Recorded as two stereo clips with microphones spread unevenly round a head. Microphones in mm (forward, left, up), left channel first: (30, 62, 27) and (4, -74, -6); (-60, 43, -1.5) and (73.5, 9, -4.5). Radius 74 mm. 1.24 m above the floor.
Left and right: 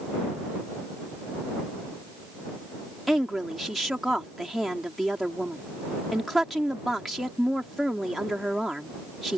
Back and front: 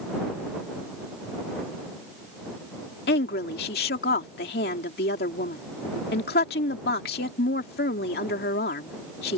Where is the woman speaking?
170° left.